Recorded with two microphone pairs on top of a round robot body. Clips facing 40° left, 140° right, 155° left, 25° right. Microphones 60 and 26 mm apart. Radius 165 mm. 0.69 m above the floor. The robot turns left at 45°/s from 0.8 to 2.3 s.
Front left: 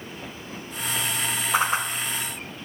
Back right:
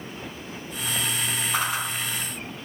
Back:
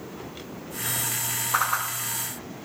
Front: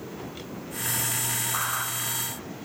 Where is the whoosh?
105° left, 0.6 m; by 1.9 s 90° left, 0.6 m.